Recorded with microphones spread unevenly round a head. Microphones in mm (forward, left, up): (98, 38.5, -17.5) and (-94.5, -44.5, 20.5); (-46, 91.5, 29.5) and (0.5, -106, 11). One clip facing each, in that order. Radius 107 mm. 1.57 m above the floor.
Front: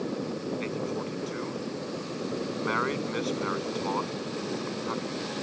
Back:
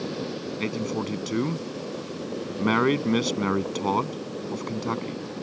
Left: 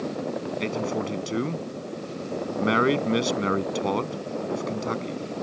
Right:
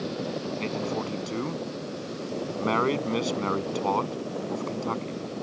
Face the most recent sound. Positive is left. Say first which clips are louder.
# back 3 dB, left 4 dB
turn(degrees=175)